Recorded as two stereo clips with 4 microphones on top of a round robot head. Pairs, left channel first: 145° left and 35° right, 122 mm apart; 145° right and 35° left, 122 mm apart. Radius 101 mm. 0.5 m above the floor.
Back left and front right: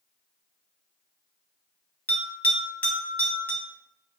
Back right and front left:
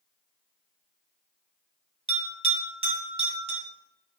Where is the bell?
70° left, 2.5 m.